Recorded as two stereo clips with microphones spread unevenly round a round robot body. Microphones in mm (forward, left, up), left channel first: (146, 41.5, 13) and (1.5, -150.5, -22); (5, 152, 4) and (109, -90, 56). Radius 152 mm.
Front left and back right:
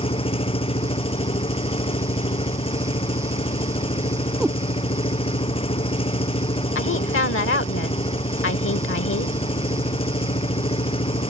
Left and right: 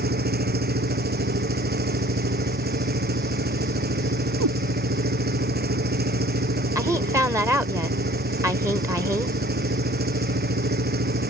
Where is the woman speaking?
15° left.